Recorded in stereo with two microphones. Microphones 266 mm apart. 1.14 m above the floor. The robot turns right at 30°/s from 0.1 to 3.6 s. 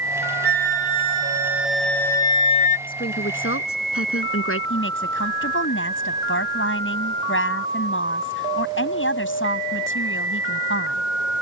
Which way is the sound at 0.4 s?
40° right.